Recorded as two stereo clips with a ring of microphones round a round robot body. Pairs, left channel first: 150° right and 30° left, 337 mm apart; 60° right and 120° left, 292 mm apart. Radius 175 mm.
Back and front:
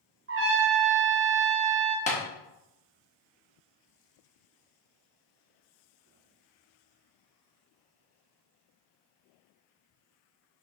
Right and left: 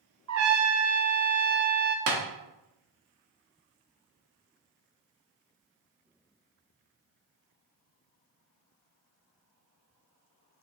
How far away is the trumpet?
About 1.1 m.